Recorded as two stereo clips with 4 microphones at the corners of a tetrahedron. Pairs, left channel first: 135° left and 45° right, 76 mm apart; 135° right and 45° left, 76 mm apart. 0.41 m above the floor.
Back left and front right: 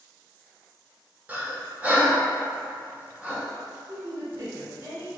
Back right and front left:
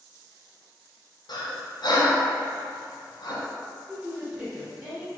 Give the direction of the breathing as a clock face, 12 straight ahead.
4 o'clock.